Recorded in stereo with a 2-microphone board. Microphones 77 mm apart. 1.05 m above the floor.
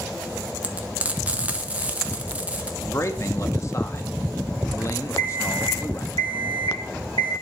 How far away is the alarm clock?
About 2.5 m.